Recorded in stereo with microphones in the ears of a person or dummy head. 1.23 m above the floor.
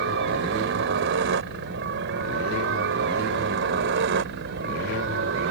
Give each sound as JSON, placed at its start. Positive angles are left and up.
{"t": 0.0, "sound": "a helicopter", "side_deg": -65}